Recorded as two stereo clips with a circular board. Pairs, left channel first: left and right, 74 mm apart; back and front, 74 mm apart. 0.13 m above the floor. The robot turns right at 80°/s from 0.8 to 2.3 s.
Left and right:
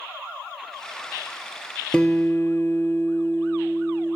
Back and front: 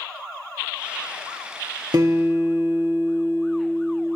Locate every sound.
1.9 s a guitar: 15° left, 0.6 m; by 4.2 s 45° left, 0.6 m